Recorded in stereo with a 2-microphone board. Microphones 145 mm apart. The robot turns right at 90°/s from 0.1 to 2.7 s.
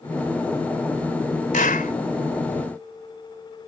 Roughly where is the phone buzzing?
I don't hear a phone buzzing.